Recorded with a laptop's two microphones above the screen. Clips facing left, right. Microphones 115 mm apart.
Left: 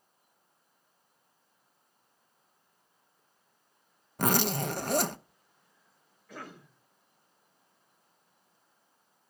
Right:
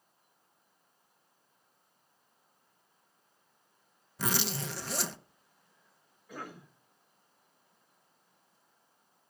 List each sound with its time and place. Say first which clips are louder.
4.2 s a zipper: left 7 dB; 50° left (ahead or behind), 0.6 m
6.3 s a cough: right 1 dB; 10° right (ahead or behind), 4.5 m